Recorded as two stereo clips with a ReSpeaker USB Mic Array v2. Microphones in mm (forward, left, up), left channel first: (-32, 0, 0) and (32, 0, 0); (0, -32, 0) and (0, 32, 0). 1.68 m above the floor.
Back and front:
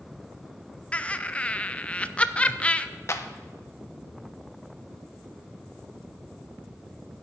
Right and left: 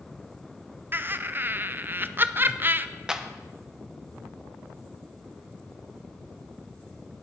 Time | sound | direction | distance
0.9 | laughter | 120° left | 0.6 m
3.1 | a clap | 165° left | 0.8 m